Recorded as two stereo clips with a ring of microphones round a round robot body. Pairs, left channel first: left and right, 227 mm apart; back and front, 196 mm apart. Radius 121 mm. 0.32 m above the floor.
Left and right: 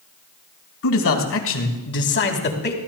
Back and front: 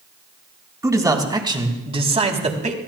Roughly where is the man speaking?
Left.